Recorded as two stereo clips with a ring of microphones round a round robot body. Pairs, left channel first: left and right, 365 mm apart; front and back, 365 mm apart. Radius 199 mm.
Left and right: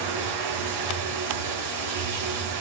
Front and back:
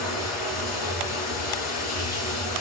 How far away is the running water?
About 4 m.